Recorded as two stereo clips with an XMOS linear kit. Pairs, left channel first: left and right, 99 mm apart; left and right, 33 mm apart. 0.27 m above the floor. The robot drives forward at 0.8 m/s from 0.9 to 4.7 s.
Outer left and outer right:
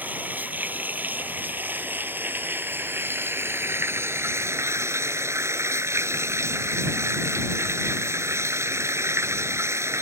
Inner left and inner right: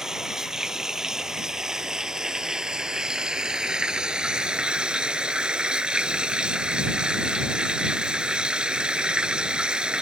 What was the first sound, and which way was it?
Running water, 15° right (ahead or behind).